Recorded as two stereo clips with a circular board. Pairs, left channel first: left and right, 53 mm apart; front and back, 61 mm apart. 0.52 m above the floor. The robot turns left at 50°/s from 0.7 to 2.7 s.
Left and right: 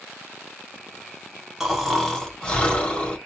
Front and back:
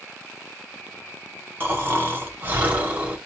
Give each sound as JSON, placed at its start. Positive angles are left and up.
{"t": 1.6, "sound": "snoring", "azimuth_deg": -165, "distance_m": 1.2}